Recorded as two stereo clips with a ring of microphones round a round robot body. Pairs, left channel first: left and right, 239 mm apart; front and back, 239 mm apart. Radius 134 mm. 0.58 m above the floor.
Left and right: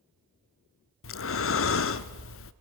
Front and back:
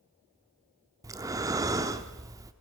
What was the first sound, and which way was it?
Breathing, 105° left.